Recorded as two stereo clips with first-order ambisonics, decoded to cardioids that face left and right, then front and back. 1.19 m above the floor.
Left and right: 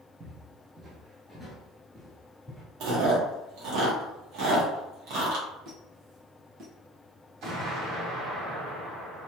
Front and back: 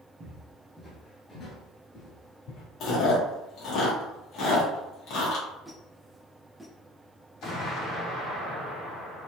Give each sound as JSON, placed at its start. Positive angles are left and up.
{"t": 0.2, "sound": "footsteps", "azimuth_deg": -135, "distance_m": 1.3}
{"t": 2.8, "sound": "chewing", "azimuth_deg": -55, "distance_m": 1.3}
{"t": 5.7, "sound": "a squeak", "azimuth_deg": -100, "distance_m": 1.4}
{"t": 7.4, "sound": "an explosion", "azimuth_deg": -45, "distance_m": 1.9}